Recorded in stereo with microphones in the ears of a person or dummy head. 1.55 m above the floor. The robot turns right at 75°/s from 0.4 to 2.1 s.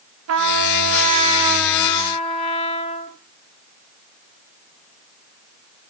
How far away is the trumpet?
About 0.9 m.